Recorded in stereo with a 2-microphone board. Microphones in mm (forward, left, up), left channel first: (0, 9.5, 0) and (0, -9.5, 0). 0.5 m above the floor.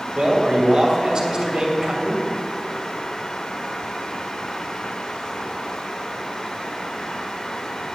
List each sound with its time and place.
0.1 s a man speaking: 40° right (ahead or behind), 2.5 m